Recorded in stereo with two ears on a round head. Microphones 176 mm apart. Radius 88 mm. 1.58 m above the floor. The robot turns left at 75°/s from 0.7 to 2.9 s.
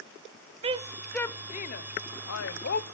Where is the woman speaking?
30° right (ahead or behind), 0.6 m; by 2.8 s 45° left (ahead or behind), 0.6 m.